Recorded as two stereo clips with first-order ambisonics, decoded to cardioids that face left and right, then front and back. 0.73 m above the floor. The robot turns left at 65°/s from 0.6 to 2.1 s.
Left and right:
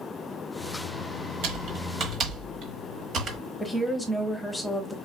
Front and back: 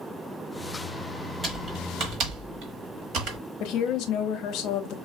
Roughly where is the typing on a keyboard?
Right.